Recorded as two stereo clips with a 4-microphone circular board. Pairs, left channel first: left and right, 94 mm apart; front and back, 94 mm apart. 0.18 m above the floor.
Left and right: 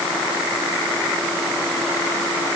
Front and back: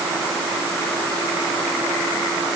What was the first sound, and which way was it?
Only background noise.